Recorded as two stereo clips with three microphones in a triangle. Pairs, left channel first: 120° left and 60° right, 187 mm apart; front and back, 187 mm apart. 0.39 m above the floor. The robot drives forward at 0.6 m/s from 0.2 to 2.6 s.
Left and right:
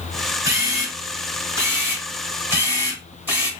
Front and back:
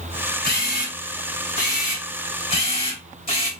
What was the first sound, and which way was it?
A camera shutter, 10° left.